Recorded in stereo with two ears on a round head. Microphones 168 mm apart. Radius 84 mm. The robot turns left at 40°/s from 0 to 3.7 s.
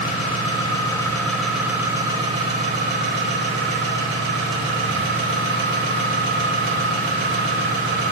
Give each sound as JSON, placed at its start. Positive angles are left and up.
{"t": 0.0, "sound": "an engine running", "azimuth_deg": 60, "distance_m": 2.5}